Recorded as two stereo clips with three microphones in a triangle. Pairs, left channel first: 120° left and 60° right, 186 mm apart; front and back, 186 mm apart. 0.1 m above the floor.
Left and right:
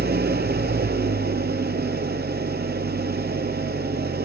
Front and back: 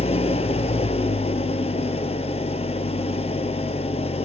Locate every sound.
0.0 s an engine running: 55° right, 0.7 m